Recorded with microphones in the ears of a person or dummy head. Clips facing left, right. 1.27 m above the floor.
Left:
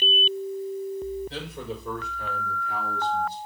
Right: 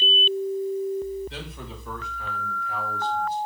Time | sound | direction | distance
1.3 | a man speaking | 45° left (ahead or behind) | 6.5 m